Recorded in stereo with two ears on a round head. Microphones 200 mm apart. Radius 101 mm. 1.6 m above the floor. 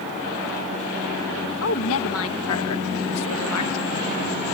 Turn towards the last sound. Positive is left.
turn(degrees=75)  # may be behind; listen again after turning